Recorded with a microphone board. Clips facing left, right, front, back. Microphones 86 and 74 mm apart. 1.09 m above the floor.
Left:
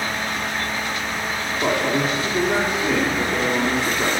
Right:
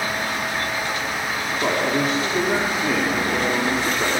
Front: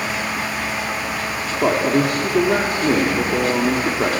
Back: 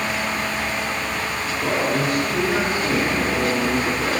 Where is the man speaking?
Straight ahead, 3 m.